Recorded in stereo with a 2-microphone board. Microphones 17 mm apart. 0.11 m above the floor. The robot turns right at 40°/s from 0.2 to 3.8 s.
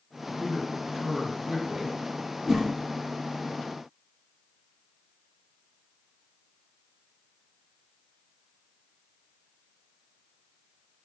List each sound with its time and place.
0.4 s a man speaking: 155° left, 3 m; by 2.0 s 145° right, 3 m
2.5 s a whoosh: 30° right (ahead or behind), 1.6 m; by 2.7 s 40° right (ahead or behind), 1.6 m